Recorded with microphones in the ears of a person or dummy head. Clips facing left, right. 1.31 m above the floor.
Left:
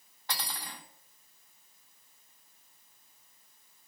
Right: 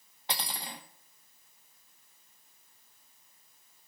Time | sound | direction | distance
0.3 | cutlery clinking | 20° right (ahead or behind) | 1.1 m